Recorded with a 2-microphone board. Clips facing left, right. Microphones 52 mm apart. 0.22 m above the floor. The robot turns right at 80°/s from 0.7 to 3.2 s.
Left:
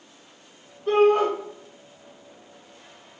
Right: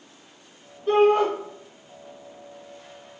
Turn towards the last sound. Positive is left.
turn(degrees=-65)